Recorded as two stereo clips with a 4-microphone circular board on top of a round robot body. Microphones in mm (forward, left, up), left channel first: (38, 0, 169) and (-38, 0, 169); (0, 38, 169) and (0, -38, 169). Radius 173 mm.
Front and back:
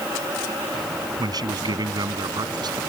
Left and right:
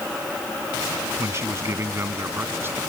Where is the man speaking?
145° right; by 2.8 s 150° right.